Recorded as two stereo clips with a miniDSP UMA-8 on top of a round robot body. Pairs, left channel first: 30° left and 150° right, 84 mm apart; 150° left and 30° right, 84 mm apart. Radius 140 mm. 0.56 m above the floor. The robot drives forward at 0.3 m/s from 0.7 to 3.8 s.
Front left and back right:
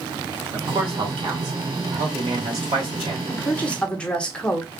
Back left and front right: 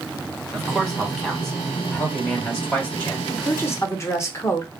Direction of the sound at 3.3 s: 90° left.